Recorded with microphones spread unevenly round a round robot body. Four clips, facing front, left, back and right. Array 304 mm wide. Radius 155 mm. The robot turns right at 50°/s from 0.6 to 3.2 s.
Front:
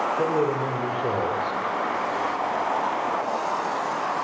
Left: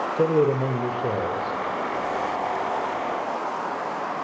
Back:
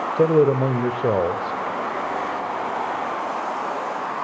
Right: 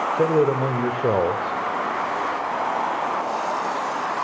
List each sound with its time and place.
0.2 s a man speaking: 175° left, 1.8 m; by 1.6 s 135° right, 1.8 m